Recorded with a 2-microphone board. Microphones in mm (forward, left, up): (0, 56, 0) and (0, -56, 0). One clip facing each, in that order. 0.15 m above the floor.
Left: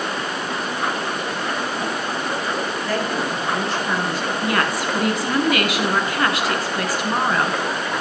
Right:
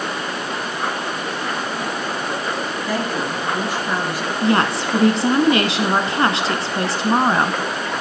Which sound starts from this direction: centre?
A woman speaking, at 2.9 s.